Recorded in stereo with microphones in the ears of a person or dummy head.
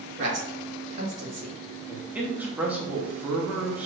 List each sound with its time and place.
0.2 s a man speaking: 35° right (ahead or behind), 1.7 m
1.9 s a man speaking: 10° right (ahead or behind), 1.0 m